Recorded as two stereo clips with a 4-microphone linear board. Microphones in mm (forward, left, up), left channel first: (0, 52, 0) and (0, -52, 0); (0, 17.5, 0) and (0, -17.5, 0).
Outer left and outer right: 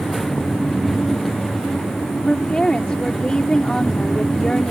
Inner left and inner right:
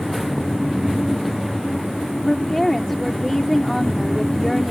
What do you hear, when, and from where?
2.2 s a woman speaking: 5° left (ahead or behind)